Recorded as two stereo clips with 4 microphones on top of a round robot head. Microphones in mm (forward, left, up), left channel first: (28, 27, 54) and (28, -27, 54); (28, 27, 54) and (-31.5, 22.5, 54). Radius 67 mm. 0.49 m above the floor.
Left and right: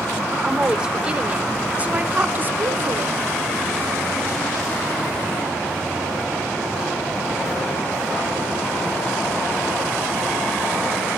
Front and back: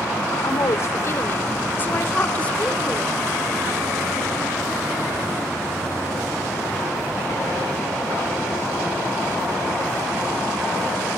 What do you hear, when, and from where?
0.3 s a woman speaking: 15° right, 2 m; by 3.2 s 75° right, 1.7 m